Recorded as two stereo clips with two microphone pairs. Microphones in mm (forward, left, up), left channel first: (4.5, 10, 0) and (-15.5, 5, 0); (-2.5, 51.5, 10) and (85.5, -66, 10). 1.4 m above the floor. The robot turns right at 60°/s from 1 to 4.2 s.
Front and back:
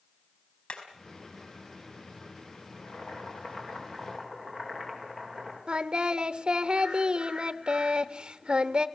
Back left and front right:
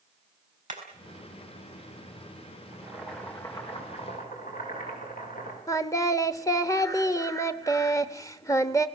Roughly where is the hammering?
Ahead right.